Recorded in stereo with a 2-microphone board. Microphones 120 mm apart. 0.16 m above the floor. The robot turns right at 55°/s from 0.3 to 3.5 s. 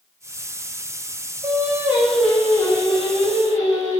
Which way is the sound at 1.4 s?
35° right.